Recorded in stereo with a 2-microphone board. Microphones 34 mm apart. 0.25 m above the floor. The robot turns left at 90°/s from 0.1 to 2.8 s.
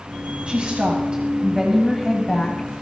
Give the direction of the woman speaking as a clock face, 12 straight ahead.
2 o'clock.